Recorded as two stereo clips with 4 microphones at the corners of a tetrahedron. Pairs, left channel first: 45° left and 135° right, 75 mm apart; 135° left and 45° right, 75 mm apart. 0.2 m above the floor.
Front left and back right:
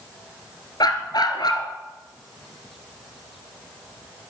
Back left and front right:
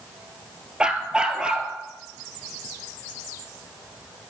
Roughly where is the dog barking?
Ahead left.